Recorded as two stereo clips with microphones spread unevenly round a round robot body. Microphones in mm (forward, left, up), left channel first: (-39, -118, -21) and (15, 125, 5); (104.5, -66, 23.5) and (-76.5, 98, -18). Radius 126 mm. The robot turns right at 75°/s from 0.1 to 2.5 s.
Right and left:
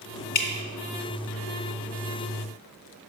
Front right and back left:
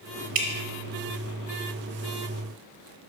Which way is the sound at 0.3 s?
160° right.